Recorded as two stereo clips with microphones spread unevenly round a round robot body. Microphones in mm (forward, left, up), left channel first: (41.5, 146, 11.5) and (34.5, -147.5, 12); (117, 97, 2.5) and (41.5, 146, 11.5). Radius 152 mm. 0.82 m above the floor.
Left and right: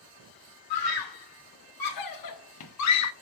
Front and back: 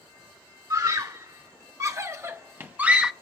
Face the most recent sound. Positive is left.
turn(degrees=60)